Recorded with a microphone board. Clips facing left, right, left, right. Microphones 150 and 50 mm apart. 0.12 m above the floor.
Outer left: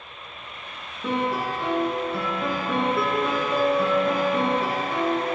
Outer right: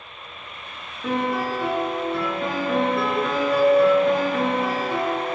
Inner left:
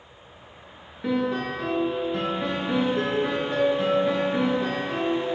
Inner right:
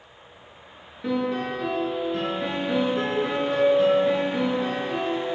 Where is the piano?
Centre (ahead or behind), 1.9 m.